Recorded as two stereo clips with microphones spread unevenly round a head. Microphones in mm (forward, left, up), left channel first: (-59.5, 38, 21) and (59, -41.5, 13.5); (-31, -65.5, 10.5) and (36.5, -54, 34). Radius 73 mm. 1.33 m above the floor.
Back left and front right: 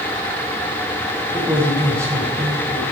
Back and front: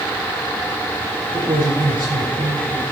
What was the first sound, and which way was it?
A man speaking, 40° left.